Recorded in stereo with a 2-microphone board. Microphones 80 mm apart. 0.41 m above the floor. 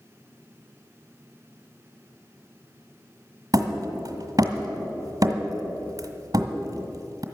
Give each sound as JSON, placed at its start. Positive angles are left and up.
{"t": 3.5, "sound": "hammering", "side_deg": -45, "distance_m": 1.5}